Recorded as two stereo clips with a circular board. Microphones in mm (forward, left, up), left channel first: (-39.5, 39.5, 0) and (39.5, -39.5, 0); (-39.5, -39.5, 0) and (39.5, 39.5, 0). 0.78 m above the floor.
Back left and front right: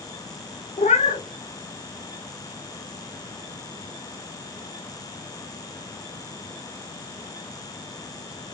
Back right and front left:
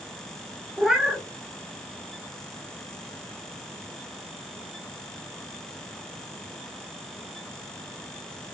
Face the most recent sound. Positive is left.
turn(degrees=130)